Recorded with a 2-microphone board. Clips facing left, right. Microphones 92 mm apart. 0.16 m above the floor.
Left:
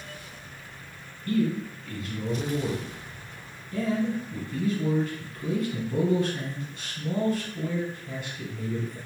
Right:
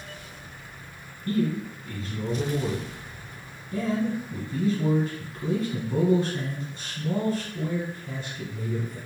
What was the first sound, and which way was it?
A man speaking, 30° right (ahead or behind).